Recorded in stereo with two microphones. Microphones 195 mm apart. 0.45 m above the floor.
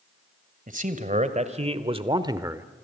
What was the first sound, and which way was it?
A man speaking, 40° right (ahead or behind).